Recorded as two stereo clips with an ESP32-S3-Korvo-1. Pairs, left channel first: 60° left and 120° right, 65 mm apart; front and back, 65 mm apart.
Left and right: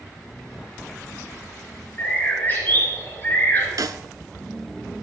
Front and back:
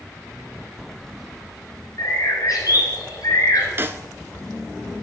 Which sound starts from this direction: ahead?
A bird, at 2.0 s.